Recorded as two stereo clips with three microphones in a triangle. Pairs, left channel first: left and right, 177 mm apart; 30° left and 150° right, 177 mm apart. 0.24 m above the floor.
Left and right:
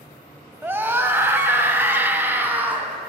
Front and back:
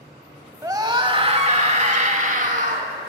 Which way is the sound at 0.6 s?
140° right.